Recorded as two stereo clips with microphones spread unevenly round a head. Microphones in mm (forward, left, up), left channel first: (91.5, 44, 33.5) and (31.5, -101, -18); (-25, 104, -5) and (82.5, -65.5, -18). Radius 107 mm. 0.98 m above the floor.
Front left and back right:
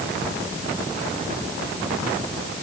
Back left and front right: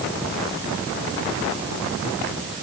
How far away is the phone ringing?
I don't hear a phone ringing.